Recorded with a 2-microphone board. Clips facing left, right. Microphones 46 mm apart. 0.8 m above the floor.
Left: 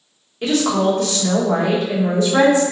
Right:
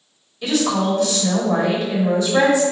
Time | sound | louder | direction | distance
0.4 | a woman speaking | left 2 dB | 45° left (ahead or behind) | 1.3 m